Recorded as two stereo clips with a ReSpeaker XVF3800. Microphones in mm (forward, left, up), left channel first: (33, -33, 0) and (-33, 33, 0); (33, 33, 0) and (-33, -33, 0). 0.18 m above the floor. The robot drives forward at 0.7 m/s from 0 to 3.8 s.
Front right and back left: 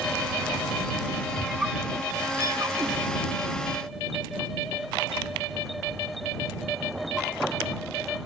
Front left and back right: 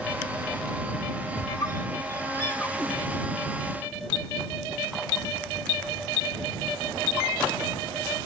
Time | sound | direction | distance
1.4 | a squeak | 50° left | 1.4 m